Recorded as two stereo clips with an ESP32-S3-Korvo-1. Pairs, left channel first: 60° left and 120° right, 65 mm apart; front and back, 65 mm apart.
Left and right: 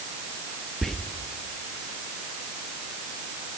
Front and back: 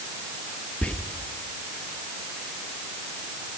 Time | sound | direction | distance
0.8 | whispering | 15° right | 0.5 m